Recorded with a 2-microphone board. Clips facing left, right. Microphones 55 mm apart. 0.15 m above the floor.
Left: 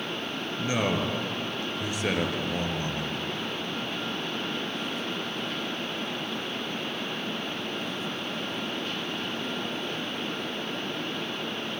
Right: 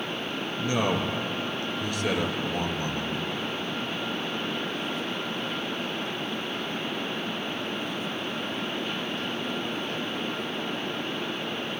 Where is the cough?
I don't hear a cough.